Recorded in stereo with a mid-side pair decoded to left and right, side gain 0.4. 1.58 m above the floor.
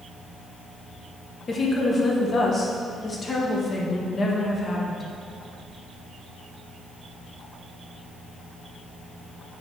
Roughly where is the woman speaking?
Ahead left.